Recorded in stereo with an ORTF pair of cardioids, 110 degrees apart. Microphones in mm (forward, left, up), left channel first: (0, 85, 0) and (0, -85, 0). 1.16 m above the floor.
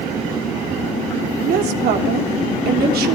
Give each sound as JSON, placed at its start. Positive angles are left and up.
{"t": 1.4, "sound": "a woman speaking", "azimuth_deg": -70, "distance_m": 3.5}